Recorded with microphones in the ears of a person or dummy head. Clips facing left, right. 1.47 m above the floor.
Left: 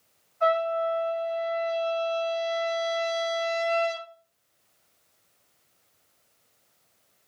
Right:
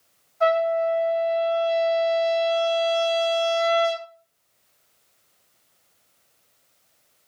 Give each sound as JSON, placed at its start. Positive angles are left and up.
{"t": 0.4, "sound": "a trumpet", "side_deg": -60, "distance_m": 1.8}